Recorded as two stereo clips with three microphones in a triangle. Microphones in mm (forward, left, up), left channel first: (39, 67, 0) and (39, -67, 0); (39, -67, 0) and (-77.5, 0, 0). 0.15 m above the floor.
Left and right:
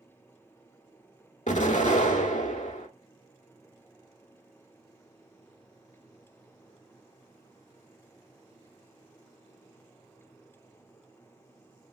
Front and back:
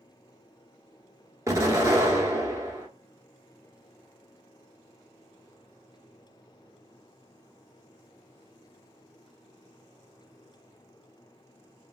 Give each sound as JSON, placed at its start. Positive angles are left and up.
{"t": 1.5, "sound": "an explosion", "azimuth_deg": 90, "distance_m": 0.7}